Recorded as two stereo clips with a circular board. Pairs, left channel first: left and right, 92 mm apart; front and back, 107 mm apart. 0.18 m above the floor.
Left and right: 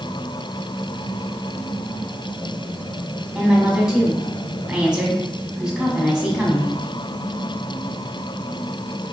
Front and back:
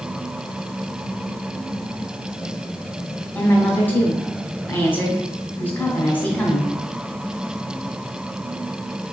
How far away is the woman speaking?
About 1.3 m.